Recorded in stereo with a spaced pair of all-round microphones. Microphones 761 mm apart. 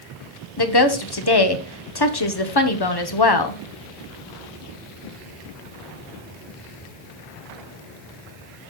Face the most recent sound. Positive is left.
turn(degrees=30)  # may be behind; listen again after turning